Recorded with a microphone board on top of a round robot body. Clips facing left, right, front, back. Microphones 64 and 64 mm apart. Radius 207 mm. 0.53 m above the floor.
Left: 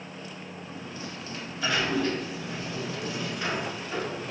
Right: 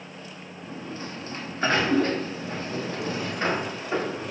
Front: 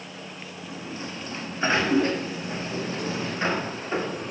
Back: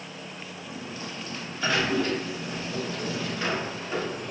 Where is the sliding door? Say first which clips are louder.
Right 5 dB, front 3 dB; 55° right, 1.5 m.